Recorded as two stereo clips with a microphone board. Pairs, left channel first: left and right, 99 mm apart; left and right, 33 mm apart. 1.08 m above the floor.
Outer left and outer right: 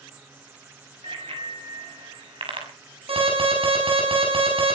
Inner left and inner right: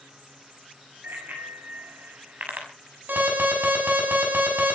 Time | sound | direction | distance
1.0 | a bicycle bell | 70° right (ahead or behind) | 5.5 m
3.1 | an alarm | 85° right | 7 m